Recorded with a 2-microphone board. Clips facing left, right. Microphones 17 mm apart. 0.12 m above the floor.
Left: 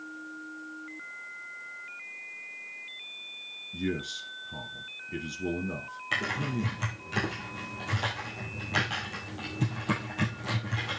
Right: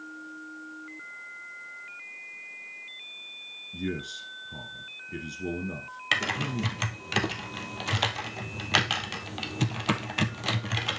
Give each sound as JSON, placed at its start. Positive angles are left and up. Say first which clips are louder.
{"t": 3.7, "sound": "a man speaking", "louder": "left 1 dB", "side_deg": 5, "distance_m": 1.5}
{"t": 6.1, "sound": "typing on a keyboard", "louder": "right 3 dB", "side_deg": -65, "distance_m": 1.9}